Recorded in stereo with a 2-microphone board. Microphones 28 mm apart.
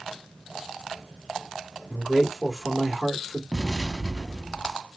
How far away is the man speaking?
About 1.5 m.